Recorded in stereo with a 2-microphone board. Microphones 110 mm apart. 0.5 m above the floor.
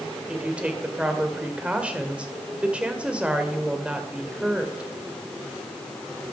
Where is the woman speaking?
10° right (ahead or behind), 1.9 m.